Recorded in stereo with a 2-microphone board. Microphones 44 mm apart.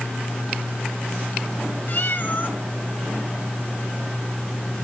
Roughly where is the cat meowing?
Left.